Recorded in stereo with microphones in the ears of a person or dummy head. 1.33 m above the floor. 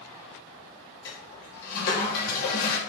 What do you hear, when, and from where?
1.1 s a toilet flushing: 55° left (ahead or behind), 3 m